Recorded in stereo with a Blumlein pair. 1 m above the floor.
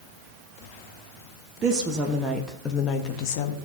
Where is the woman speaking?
25° right, 1.6 m; by 3.6 s 55° left, 1.6 m.